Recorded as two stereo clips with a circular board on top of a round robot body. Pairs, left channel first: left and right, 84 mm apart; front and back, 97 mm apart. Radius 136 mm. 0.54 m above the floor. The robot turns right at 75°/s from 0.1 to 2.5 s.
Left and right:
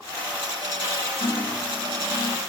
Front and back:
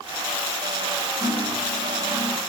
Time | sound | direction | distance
1.2 | cutlery clinking | 135° left | 1.4 m